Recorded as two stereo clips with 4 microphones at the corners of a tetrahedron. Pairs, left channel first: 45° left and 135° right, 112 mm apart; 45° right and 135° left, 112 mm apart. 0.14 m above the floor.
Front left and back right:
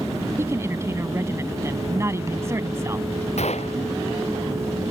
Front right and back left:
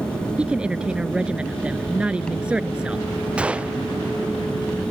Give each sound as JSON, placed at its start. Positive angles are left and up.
{"t": 0.4, "sound": "a woman speaking", "azimuth_deg": -155}
{"t": 3.4, "sound": "a gunshot", "azimuth_deg": 55}